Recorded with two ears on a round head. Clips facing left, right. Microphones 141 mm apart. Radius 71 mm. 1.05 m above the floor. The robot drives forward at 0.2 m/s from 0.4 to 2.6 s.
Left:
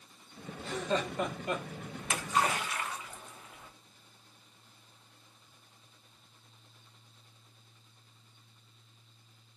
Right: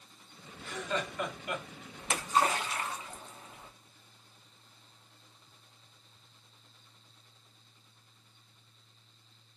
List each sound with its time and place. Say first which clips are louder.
0.6 s laughter: left 3 dB; 30° left (ahead or behind), 1.0 m; by 1.6 s 25° left (ahead or behind), 1.2 m
2.0 s a splash: right 2 dB; 30° right (ahead or behind), 0.6 m; by 3.7 s 25° right (ahead or behind), 0.7 m